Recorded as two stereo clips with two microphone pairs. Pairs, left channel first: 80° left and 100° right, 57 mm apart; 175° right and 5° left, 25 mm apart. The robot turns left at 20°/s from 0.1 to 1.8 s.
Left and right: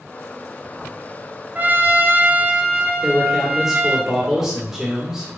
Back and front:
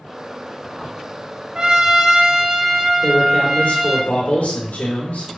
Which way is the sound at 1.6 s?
45° right.